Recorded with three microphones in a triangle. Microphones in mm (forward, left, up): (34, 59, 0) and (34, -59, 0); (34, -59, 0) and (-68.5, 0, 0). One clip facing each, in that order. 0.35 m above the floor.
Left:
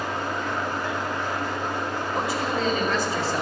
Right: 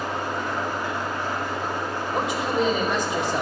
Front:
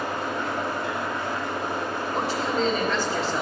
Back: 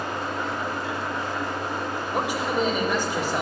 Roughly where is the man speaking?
Behind right.